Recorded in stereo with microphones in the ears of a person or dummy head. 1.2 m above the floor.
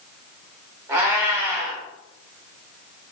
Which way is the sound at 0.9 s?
15° right (ahead or behind).